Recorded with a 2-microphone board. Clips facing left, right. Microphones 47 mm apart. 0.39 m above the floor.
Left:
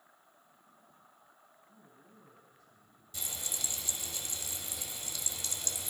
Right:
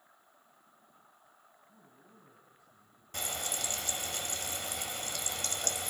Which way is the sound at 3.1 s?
60° right (ahead or behind).